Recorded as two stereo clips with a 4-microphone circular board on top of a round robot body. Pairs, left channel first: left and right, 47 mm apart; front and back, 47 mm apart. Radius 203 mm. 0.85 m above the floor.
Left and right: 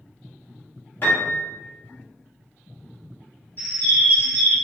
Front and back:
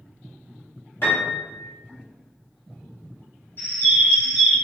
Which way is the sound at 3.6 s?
35° left.